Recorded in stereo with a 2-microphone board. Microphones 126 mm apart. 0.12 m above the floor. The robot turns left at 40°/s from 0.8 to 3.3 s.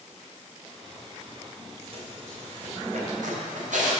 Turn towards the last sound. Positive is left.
turn(degrees=-90)